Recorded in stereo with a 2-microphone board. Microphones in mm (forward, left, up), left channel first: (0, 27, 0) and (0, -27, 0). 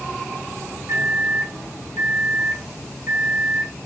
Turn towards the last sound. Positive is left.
turn(degrees=-60)  # may be behind; listen again after turning